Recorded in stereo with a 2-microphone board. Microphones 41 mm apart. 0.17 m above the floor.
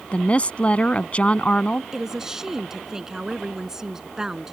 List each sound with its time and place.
0.1 s a woman speaking: 30° left (ahead or behind)
1.9 s a woman speaking: 15° right (ahead or behind)